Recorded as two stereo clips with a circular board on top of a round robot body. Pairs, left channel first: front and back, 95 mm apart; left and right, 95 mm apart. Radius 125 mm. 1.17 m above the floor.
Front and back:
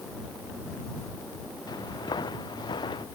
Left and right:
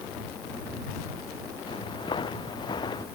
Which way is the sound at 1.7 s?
50° left.